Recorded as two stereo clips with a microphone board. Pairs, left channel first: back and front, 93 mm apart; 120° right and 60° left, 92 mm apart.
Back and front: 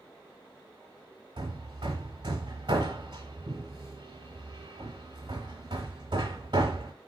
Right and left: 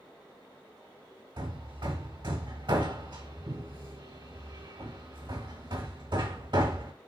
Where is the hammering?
30° left, 1.4 m.